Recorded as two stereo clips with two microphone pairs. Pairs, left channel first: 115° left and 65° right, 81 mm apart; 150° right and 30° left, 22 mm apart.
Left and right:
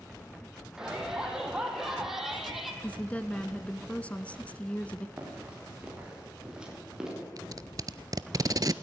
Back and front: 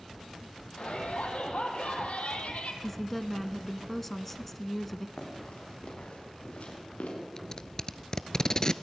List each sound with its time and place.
0.8 s a shout: 150° right, 6 m; by 2.7 s 155° right, 4.5 m
2.8 s a woman speaking: 155° left, 1.2 m
5.2 s running footsteps: 140° right, 8 m; by 7.1 s 150° right, 8.5 m
7.4 s tape being pulled: 95° right, 0.7 m